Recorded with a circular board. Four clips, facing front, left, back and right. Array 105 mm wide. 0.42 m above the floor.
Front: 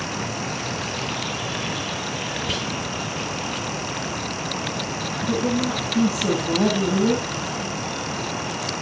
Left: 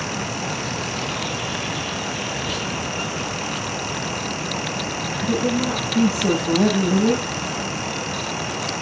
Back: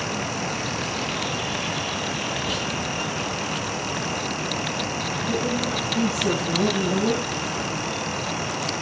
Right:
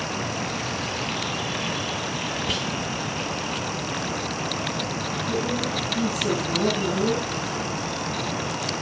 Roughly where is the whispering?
Ahead right.